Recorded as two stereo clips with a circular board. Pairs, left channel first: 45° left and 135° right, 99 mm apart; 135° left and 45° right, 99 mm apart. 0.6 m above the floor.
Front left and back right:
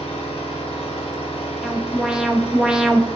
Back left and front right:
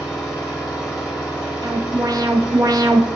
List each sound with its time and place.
0.0 s an engine running: 40° left, 3 m
1.6 s an alarm: 55° right, 1.0 m